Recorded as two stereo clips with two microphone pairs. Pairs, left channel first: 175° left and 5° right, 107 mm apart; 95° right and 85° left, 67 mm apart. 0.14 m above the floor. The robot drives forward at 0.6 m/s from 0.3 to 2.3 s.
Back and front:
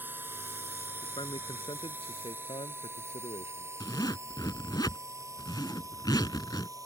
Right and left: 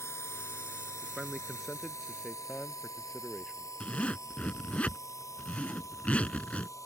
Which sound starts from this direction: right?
A drone, at 0.0 s.